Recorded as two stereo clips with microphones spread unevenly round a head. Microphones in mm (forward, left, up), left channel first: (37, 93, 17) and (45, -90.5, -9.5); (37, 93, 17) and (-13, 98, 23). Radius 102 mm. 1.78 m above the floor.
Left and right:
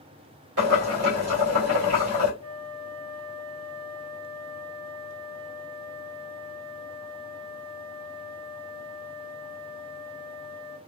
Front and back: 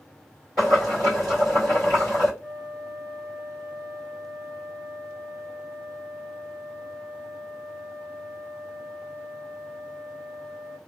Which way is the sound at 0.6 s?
100° right.